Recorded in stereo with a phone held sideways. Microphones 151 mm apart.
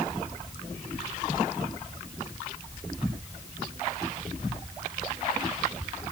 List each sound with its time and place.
Only background noise.